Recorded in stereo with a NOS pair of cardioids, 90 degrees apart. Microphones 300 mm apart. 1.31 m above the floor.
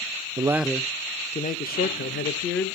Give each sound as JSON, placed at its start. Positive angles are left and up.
{"t": 0.4, "sound": "a man speaking", "azimuth_deg": -15, "distance_m": 0.6}